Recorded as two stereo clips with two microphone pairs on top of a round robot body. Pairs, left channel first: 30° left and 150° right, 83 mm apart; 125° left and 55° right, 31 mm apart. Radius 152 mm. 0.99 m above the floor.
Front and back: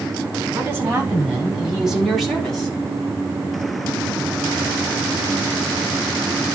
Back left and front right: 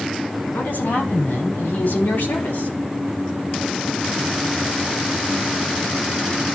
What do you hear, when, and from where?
0.5 s a woman speaking: 145° left, 5 m; by 2.7 s 115° left, 4 m